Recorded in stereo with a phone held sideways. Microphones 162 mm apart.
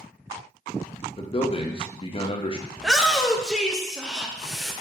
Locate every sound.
1.2 s a man speaking: 35° left (ahead or behind), 0.7 m
2.8 s a shout: centre (ahead or behind), 0.6 m